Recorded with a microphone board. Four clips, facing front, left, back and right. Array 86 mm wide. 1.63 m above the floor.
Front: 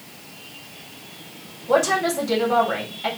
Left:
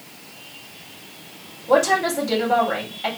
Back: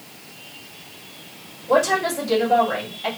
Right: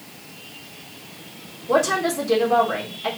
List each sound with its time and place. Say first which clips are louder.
1.7 s a woman speaking: left 2 dB, even; 80° left, 2 m